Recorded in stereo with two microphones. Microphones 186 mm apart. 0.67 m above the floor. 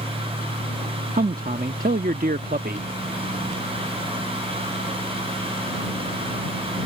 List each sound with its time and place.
1.1 s a man speaking: 50° right (ahead or behind)